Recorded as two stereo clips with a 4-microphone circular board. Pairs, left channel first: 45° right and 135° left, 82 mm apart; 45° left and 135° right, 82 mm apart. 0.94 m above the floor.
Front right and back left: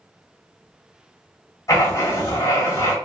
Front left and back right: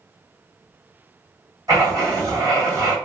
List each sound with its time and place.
1.7 s writing: 90° right, 1.4 m